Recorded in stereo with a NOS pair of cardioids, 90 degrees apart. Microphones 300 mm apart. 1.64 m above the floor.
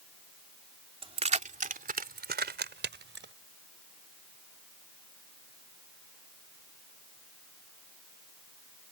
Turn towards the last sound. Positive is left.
turn(degrees=-40)